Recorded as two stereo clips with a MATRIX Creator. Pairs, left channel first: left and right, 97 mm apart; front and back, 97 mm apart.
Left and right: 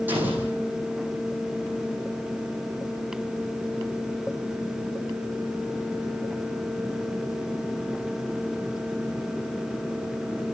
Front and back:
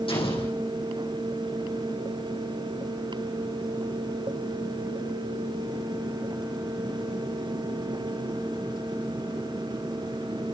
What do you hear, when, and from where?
0.1 s an explosion: 20° right, 6 m